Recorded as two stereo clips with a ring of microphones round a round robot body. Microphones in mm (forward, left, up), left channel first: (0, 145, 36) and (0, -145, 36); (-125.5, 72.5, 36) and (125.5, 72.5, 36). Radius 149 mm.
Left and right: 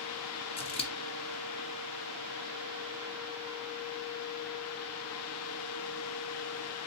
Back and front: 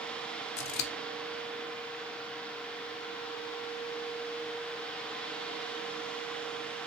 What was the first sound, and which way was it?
Scissors, 160° left.